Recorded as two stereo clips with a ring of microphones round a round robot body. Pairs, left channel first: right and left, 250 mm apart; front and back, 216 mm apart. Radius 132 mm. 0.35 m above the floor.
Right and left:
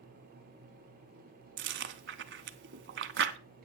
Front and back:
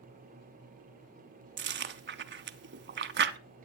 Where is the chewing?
140° left, 0.7 m.